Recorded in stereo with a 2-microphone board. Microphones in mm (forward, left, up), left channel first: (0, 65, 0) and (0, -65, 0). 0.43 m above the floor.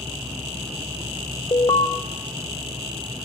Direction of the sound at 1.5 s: 35° left (ahead or behind).